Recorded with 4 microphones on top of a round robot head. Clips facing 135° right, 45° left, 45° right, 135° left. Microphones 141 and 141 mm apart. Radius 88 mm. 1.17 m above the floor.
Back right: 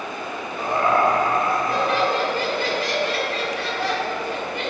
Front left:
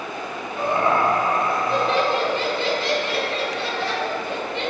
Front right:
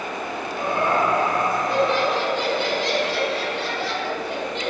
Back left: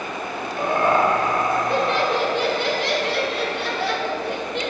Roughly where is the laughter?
Left.